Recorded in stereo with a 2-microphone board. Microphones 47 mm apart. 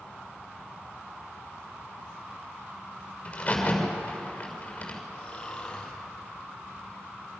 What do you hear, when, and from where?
3.2 s a crack: 30° left (ahead or behind), 6 m
5.1 s snoring: 25° left (ahead or behind), 4 m